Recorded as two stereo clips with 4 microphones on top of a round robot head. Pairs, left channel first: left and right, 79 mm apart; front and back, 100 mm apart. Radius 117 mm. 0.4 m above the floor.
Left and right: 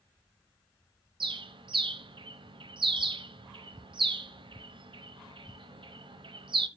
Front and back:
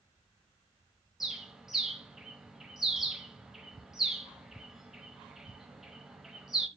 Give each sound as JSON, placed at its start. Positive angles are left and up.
{"t": 1.2, "sound": "a bird", "azimuth_deg": -95, "distance_m": 1.3}